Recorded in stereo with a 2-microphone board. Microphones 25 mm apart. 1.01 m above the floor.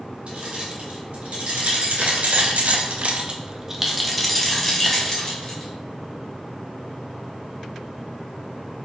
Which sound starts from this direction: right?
Keys jangling, at 0.3 s.